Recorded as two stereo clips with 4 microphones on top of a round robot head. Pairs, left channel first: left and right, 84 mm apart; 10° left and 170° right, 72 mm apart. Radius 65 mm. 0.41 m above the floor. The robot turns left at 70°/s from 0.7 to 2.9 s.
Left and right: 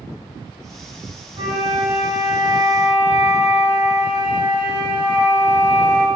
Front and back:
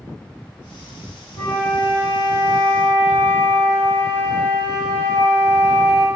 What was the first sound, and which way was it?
A flute, 45° right.